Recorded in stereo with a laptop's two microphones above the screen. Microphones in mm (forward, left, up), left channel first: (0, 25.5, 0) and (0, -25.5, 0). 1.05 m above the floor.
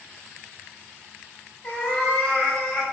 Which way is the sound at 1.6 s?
15° left (ahead or behind).